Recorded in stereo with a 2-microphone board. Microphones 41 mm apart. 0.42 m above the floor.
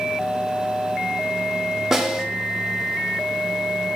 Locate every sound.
1.9 s a snare drum: 10° right (ahead or behind), 0.6 m